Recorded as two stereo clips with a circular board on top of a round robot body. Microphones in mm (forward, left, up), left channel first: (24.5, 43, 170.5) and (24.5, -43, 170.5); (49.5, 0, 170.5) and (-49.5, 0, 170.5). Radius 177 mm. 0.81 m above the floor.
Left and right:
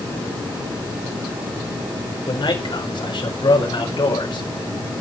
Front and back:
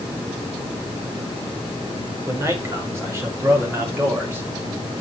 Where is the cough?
No cough in this recording.